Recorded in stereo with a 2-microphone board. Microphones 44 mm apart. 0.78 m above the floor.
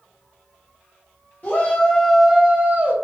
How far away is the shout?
About 0.7 m.